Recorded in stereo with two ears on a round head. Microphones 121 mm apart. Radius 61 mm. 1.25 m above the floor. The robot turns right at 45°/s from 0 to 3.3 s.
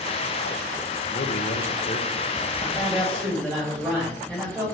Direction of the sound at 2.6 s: 160° left.